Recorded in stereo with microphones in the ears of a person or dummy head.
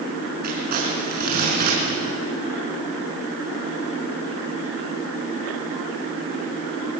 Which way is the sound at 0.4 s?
55° right (ahead or behind).